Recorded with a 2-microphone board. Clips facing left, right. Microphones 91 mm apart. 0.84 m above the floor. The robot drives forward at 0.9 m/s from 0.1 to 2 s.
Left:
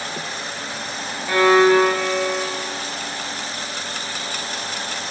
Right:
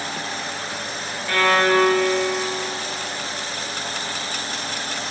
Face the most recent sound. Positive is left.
turn(degrees=10)  # may be behind; listen again after turning